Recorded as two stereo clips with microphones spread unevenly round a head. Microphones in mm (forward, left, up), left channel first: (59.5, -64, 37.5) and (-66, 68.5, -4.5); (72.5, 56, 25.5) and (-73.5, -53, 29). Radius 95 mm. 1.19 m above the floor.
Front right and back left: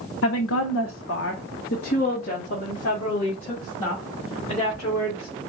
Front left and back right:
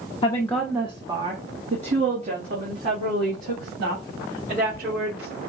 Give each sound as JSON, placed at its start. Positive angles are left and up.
{"t": 0.2, "sound": "a woman speaking", "azimuth_deg": -30, "distance_m": 0.8}